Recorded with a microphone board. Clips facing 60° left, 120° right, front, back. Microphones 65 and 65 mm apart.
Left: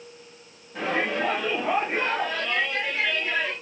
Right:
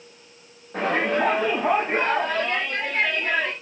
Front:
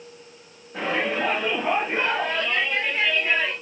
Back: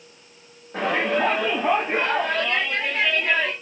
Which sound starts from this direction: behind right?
A shout, at 0.7 s.